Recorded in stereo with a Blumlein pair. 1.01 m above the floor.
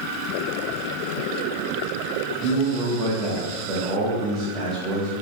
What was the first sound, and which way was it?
A man speaking, 15° right.